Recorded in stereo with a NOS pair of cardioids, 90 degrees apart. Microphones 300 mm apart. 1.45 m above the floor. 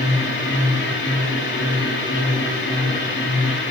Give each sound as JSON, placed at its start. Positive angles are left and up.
{"t": 0.0, "sound": "a machine running", "azimuth_deg": 40, "distance_m": 2.5}